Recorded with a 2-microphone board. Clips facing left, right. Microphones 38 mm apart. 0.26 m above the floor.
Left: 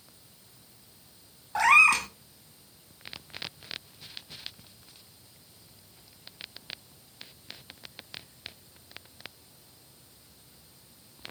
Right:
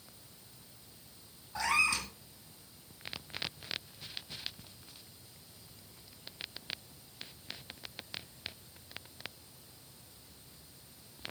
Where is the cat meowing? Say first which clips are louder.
Left 11 dB; 65° left (ahead or behind), 0.7 m.